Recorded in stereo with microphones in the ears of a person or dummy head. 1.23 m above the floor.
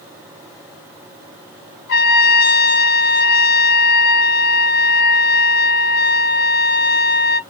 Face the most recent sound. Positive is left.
turn(degrees=55)  # may be behind; listen again after turning